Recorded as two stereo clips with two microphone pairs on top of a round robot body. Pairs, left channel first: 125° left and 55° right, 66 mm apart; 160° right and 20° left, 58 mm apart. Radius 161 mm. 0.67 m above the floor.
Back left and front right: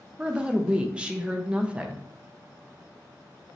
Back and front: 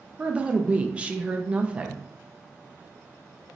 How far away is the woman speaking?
About 0.6 m.